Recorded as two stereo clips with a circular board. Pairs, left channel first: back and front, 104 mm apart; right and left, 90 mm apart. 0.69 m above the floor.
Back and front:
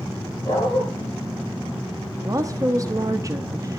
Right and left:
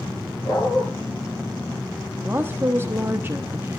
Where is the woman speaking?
40° left, 1.0 m.